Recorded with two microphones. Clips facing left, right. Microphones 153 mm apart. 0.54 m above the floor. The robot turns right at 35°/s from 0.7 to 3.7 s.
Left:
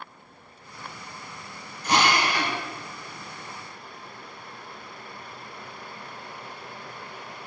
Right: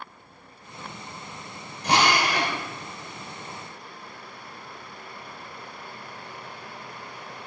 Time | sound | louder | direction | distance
1.8 | a drill | right 1 dB | 65° right (ahead or behind) | 2.5 m